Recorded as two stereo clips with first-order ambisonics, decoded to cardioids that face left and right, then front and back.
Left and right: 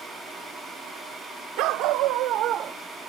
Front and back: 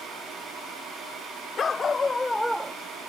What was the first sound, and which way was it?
A dog barking, 70° right.